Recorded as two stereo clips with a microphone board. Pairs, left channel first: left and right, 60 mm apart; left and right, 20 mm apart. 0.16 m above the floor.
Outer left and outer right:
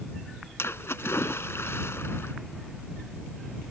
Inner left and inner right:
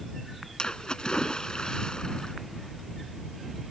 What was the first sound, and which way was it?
A splash, 45° left (ahead or behind).